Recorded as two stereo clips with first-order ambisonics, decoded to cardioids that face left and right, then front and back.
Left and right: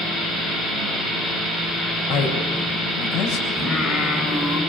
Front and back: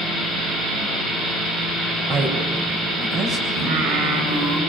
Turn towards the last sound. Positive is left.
turn(degrees=155)